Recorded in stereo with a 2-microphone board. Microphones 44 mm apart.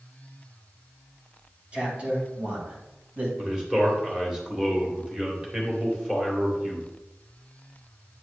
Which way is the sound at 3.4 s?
15° right (ahead or behind).